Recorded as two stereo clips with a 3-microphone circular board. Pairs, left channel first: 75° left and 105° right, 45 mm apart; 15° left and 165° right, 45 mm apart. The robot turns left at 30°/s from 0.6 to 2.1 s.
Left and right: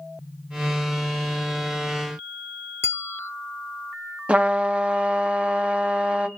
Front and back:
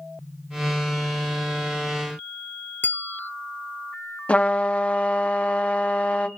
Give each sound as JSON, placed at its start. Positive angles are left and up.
{"t": 2.8, "sound": "a bell", "azimuth_deg": 60, "distance_m": 0.6}
{"t": 4.3, "sound": "a trumpet", "azimuth_deg": -45, "distance_m": 0.9}